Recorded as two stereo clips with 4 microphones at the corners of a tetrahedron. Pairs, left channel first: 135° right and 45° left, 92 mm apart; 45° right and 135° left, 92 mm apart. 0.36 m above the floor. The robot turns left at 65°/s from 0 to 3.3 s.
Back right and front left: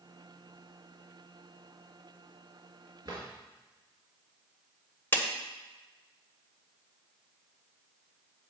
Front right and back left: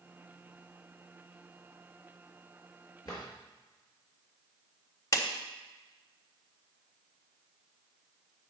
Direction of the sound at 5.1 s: 75° right.